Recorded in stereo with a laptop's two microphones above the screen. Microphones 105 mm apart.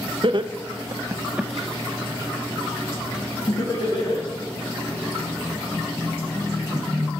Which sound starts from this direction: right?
Laughter, at 0.2 s.